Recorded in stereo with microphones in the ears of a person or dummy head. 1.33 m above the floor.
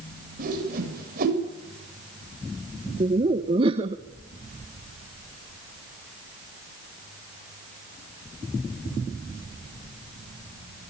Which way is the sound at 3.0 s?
30° right (ahead or behind).